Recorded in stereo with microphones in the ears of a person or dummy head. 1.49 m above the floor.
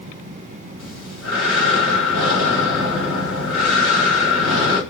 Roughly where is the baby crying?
No baby crying in this recording.